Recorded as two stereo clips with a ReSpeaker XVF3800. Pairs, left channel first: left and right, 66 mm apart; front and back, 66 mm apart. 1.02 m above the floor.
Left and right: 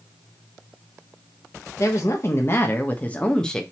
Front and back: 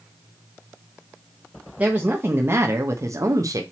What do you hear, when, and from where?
1.8 s a woman speaking: 115° left, 1.4 m; by 3.6 s 170° left, 1.4 m